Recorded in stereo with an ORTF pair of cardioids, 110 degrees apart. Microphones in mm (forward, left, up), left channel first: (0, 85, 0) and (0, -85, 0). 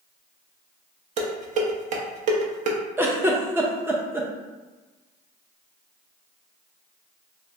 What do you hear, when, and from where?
1.2 s dishes clattering: 45° right, 0.7 m
3.0 s a giggle: 15° right, 0.6 m